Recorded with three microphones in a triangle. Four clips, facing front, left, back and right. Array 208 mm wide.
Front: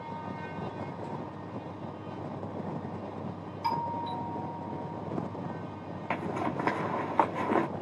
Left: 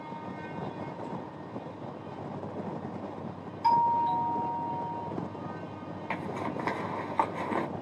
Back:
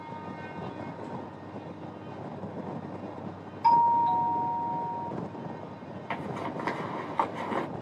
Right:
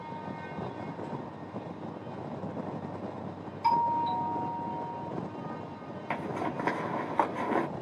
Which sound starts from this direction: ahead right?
A zipper, at 6.1 s.